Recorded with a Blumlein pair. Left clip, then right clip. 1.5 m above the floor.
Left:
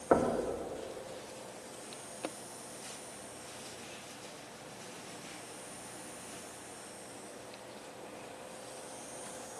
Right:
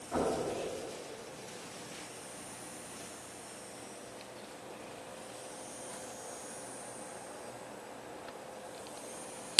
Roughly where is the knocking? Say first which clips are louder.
Left 4 dB; ahead left.